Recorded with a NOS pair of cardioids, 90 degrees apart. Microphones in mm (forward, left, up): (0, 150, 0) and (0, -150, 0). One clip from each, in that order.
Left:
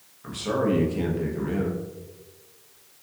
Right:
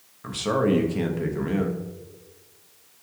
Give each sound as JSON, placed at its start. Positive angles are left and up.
{"t": 0.2, "sound": "a man speaking", "azimuth_deg": -30, "distance_m": 0.7}